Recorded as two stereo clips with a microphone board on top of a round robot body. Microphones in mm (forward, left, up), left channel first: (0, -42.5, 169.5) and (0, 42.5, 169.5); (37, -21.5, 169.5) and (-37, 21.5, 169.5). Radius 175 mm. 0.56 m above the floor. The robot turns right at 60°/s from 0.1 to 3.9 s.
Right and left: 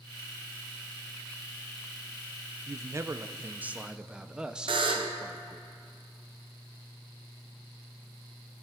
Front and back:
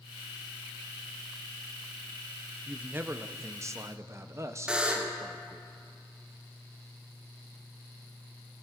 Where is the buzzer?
70° left, 0.8 m.